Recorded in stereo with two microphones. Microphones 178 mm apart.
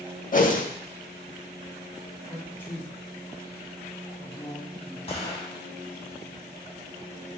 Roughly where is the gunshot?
Left.